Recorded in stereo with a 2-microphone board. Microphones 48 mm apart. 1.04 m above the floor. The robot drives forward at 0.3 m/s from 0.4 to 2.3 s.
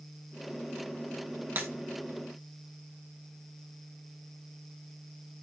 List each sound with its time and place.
1.6 s breaking glass: 50° right (ahead or behind), 1.4 m